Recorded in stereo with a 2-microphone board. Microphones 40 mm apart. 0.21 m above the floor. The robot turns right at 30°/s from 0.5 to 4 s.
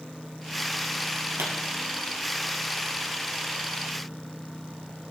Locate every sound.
1.4 s a pop: 65° right (ahead or behind), 1.9 m; by 1.5 s 70° right (ahead or behind), 1.9 m